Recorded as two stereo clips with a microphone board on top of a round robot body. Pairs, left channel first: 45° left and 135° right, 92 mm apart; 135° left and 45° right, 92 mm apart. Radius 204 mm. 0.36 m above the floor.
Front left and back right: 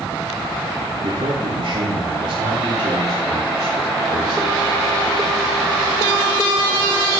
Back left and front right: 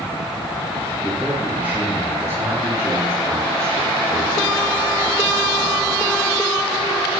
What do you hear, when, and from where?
1.0 s a man speaking: 130° right, 4 m; by 4.7 s 75° right, 6 m